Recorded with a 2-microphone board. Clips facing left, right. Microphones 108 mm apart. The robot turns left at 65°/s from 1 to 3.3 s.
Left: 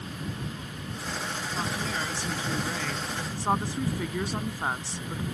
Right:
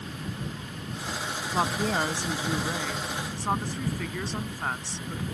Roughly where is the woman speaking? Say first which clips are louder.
Right 7 dB; right.